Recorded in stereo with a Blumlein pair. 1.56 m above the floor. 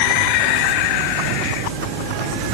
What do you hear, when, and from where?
Only background noise.